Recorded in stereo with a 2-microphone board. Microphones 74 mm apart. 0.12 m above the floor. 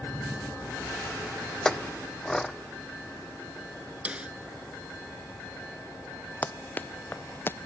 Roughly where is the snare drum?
Centre.